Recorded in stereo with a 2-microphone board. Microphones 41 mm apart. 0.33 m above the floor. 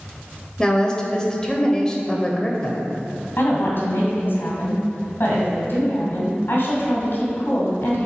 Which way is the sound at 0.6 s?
20° left (ahead or behind).